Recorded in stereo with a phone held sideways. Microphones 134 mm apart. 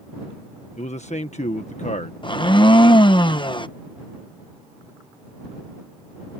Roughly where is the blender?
Left.